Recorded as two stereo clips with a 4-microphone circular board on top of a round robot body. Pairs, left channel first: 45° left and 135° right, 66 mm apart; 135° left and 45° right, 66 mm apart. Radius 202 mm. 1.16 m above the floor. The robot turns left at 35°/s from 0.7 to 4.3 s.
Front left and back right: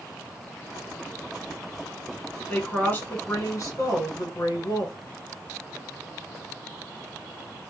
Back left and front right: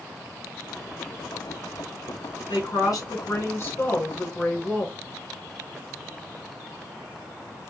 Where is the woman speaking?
120° left, 1.6 m; by 4.9 s 55° left, 1.6 m.